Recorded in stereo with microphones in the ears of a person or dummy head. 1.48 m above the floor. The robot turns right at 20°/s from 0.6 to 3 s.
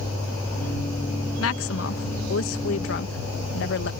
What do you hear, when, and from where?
1.4 s a woman speaking: 80° left; by 3.9 s 115° left